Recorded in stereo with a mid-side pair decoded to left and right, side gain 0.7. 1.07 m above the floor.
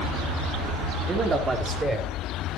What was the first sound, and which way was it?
A man speaking, 30° right.